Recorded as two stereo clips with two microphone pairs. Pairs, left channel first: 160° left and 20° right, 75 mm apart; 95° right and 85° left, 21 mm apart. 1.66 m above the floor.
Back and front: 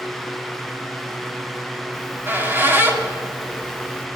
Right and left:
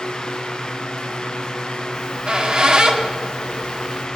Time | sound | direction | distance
1.9 | a squeak | 45° left | 2.5 m